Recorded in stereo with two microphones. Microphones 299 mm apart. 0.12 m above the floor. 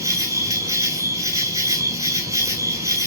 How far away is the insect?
About 0.9 m.